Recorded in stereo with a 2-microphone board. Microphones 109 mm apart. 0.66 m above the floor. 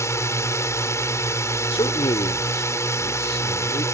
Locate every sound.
0.0 s a drone: 25° left (ahead or behind)
1.7 s a man speaking: 60° left (ahead or behind)